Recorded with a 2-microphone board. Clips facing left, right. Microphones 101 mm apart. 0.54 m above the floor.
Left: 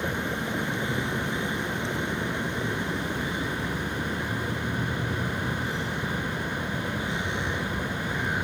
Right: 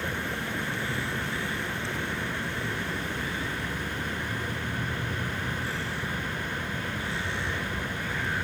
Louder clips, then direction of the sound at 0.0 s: Left 3 dB; 20° left (ahead or behind).